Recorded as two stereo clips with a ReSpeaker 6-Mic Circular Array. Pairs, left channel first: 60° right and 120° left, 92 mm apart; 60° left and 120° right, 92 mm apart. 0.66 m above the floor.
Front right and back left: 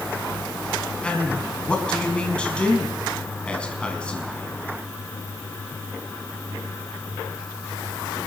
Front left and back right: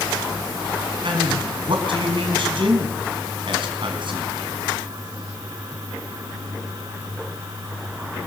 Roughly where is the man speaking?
Behind right.